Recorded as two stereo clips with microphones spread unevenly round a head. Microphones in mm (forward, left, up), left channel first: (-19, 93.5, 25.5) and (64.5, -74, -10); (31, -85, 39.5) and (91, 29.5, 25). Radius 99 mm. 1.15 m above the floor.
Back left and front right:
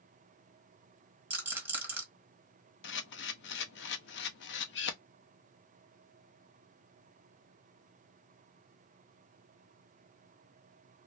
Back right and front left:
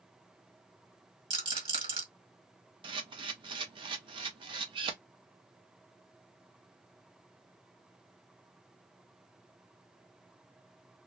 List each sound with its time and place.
1.3 s a rattle: 20° left, 1.4 m
2.8 s a camera shutter: 100° left, 0.6 m